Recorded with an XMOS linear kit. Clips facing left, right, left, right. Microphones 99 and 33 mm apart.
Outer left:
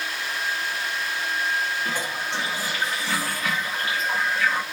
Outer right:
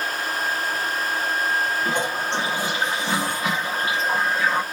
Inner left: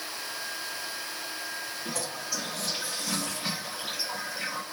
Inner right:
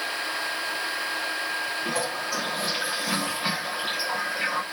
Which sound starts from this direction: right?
A toilet flushing, at 1.9 s.